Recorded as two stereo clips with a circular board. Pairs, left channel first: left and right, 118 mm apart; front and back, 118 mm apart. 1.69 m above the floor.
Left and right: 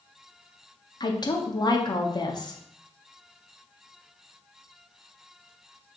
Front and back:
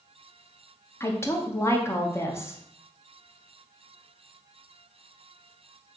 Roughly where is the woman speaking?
Ahead left.